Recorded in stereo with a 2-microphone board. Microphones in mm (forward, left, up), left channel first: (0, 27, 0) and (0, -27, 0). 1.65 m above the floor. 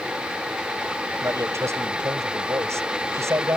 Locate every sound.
1.2 s a man speaking: 60° right (ahead or behind)